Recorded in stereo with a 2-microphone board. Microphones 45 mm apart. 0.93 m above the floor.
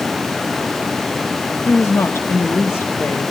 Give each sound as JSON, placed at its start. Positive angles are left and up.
{"t": 1.6, "sound": "a woman speaking", "side_deg": 75, "distance_m": 1.2}